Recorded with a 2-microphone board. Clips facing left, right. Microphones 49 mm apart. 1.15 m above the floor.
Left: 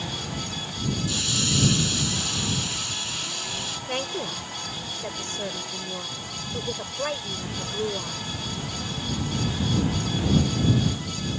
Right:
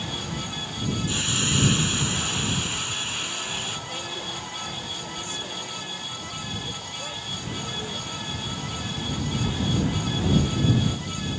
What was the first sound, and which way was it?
A hiss, 30° right (ahead or behind).